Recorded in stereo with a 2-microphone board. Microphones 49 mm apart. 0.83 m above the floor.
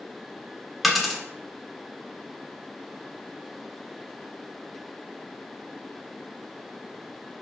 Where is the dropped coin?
5° right (ahead or behind), 0.5 m.